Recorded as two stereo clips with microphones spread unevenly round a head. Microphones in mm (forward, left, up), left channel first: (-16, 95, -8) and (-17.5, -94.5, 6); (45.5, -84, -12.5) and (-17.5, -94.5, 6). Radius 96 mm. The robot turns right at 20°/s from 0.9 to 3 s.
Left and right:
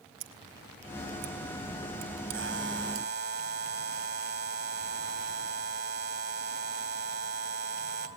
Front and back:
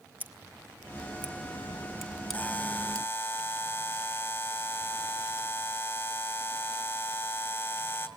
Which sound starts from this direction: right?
Scissors, at 0.2 s.